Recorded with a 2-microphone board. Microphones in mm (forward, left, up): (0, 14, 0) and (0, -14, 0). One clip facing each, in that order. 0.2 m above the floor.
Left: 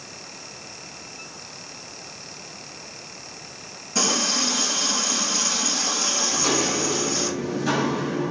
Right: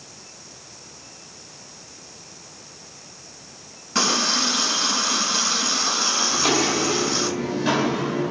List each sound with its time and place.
4.0 s a running tap: 50° right (ahead or behind), 1.2 m
6.3 s footsteps: 55° right (ahead or behind), 2 m; by 8.3 s 80° right, 3.5 m